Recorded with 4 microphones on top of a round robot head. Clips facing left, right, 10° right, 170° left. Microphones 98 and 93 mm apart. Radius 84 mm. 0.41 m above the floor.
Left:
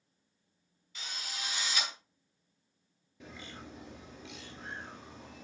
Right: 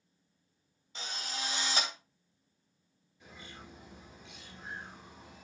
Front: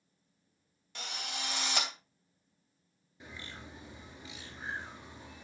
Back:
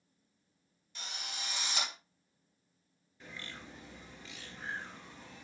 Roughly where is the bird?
Ahead left.